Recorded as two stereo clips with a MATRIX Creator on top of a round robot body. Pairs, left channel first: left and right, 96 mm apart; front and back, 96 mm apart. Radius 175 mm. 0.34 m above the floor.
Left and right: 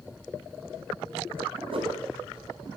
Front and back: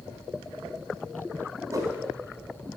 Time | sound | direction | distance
1.7 | a whoosh | 120° right | 0.9 m